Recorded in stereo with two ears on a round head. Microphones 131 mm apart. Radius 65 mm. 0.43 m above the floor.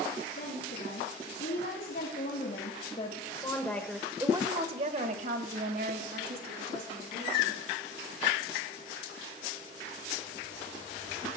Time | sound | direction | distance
0.4 | a woman speaking | 70° left (ahead or behind) | 4 m